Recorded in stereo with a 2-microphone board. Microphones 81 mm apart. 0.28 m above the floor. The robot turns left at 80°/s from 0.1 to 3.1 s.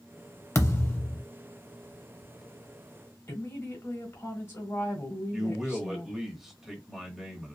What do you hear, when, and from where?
0.6 s a thud: 100° left, 0.6 m; by 1.2 s 45° left, 0.6 m
3.3 s a woman speaking: 35° left (ahead or behind), 1.2 m
5.3 s a man speaking: 5° right (ahead or behind), 0.9 m